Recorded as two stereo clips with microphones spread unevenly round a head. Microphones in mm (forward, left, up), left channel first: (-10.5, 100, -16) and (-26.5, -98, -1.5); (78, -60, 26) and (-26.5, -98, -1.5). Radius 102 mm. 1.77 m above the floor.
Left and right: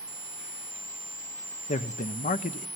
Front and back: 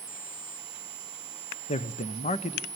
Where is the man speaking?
25° left, 0.9 m.